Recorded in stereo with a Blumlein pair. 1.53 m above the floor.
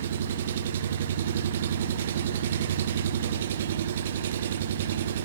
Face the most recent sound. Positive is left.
turn(degrees=-60)